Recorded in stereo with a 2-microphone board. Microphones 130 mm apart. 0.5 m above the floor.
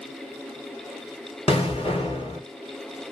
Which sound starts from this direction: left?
An explosion, at 1.5 s.